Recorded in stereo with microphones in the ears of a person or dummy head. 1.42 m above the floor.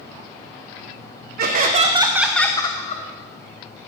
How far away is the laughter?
About 1.1 m.